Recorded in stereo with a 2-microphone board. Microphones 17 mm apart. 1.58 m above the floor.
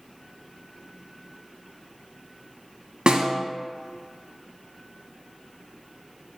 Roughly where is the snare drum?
Right.